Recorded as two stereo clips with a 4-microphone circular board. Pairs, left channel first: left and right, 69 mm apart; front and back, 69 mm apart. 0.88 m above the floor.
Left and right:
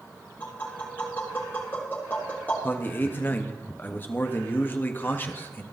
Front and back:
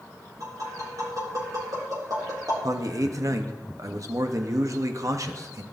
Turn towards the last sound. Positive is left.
turn(degrees=150)